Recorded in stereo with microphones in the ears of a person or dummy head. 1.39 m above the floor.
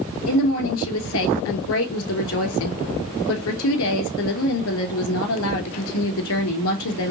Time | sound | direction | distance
0.3 | a woman speaking | 70° left (ahead or behind) | 3.5 m